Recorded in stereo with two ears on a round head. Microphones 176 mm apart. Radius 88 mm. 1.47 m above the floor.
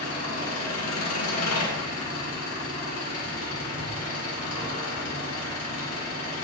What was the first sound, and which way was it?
An engine running, 80° left.